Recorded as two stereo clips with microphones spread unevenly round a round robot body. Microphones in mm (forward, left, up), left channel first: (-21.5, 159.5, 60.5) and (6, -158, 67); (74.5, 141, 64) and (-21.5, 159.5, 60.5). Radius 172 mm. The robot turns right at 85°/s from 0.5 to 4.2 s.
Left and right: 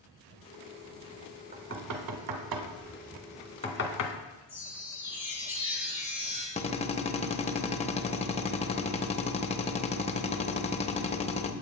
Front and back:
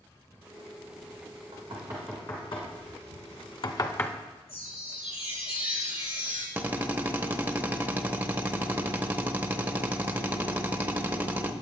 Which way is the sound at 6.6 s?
130° left.